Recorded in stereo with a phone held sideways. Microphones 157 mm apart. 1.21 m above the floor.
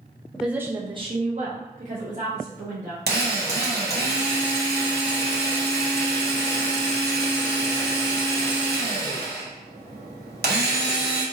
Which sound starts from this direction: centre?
A woman speaking, at 0.3 s.